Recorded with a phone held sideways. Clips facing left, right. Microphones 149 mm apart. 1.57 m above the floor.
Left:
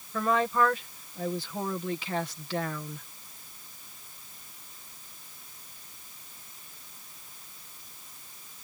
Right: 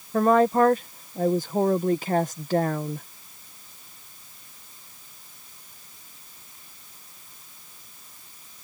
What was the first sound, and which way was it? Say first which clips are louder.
A woman speaking: right 8 dB; 50° right (ahead or behind).